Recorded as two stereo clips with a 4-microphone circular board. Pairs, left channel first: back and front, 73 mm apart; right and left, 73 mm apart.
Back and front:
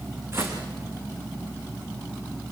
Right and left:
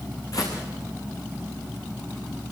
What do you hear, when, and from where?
0.3 s footsteps: 55° right, 6 m